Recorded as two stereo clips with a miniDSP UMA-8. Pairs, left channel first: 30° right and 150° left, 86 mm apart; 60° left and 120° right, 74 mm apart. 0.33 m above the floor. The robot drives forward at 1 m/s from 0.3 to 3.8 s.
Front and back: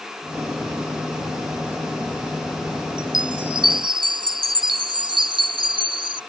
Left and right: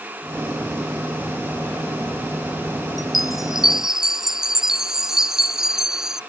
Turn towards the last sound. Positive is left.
turn(degrees=155)